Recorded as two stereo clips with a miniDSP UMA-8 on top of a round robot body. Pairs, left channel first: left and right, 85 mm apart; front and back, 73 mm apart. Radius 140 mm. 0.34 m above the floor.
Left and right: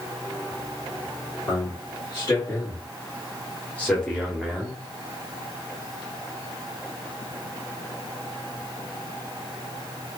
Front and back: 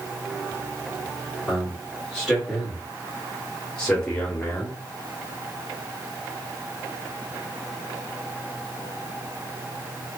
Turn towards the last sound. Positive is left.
turn(degrees=-25)